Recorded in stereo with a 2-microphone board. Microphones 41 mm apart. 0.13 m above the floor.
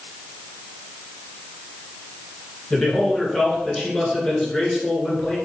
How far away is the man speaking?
About 2.0 m.